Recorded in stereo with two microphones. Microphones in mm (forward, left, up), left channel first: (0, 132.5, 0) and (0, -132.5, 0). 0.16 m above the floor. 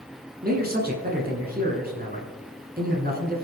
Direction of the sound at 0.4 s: 35° right (ahead or behind).